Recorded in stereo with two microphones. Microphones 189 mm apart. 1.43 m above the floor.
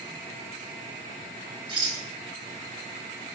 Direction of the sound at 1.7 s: 25° right (ahead or behind).